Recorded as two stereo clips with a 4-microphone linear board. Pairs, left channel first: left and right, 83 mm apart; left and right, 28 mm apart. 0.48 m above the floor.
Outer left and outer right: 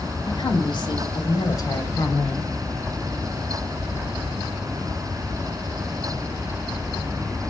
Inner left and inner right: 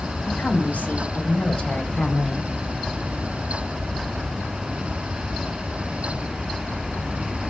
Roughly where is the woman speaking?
Left.